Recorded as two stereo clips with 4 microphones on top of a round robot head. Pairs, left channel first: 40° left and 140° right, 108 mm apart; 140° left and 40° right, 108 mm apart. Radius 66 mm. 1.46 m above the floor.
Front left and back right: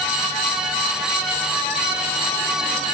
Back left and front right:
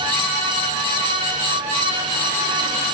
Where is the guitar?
I don't hear a guitar.